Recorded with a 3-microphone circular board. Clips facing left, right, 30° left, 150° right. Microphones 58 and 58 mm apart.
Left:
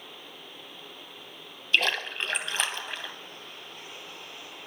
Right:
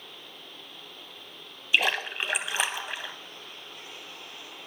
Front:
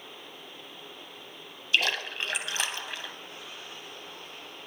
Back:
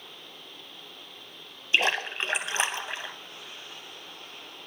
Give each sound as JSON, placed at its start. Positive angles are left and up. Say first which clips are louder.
{"t": 1.7, "sound": "a splash", "louder": "right 1 dB, back 2 dB", "azimuth_deg": -160, "distance_m": 0.6}